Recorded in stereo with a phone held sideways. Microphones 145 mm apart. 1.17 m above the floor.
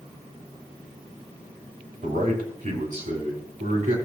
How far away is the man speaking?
About 3 m.